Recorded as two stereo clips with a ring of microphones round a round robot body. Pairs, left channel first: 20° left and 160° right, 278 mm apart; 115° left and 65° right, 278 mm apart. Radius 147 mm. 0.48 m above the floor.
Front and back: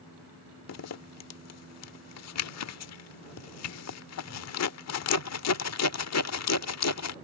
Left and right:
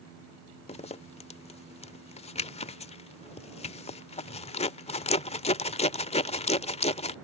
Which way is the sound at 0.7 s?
45° left.